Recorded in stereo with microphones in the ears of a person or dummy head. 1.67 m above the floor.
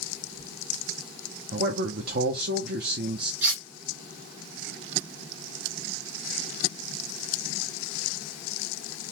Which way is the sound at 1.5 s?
55° right (ahead or behind).